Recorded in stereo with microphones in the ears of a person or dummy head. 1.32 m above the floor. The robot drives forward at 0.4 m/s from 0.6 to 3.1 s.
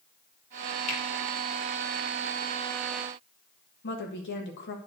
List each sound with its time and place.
0.9 s a finger snap: 40° left (ahead or behind), 2 m
3.8 s a woman speaking: 60° left (ahead or behind), 1.4 m